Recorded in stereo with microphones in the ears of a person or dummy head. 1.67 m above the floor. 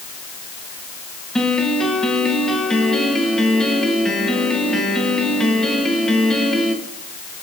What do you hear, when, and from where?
1.4 s a piano: 5° left (ahead or behind), 2 m